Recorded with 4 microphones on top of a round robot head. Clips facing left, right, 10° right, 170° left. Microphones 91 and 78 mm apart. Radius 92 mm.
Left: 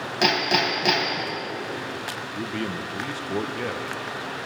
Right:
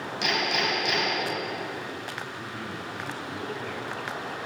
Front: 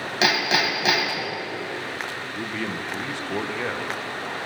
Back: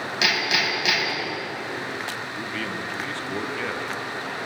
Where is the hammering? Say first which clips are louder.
Left 5 dB, front 3 dB; 45° left, 4 m.